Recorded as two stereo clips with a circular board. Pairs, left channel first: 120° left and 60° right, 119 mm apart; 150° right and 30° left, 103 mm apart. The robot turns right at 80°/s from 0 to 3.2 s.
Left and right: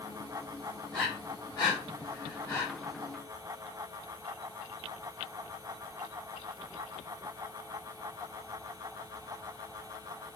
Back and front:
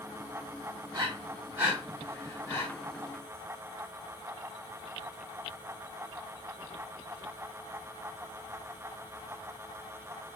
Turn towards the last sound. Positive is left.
turn(degrees=-140)